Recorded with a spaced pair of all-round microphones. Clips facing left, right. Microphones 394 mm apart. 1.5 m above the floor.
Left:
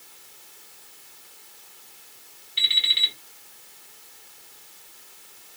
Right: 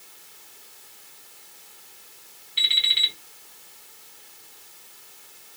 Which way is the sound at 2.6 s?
Centre (ahead or behind).